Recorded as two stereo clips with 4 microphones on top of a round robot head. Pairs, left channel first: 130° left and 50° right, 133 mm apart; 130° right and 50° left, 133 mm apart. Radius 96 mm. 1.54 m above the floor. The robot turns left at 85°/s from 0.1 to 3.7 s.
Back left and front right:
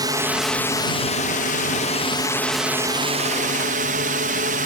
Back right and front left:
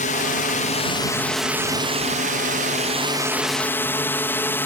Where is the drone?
110° right; by 4.7 s 55° right.